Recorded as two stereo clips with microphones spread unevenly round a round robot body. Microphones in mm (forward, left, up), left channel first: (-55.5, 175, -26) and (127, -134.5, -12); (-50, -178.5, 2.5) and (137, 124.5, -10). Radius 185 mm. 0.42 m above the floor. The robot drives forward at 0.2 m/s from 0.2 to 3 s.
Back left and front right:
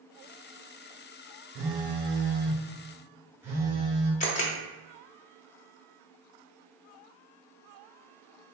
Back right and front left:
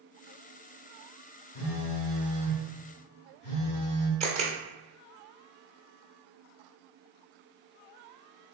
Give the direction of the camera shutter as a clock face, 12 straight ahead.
8 o'clock.